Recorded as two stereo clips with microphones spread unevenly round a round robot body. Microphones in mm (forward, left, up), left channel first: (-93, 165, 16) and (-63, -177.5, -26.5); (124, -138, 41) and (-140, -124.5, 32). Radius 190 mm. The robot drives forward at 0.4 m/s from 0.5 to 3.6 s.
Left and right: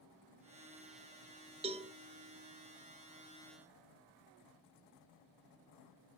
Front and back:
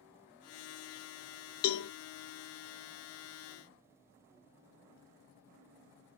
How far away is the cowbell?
About 0.9 m.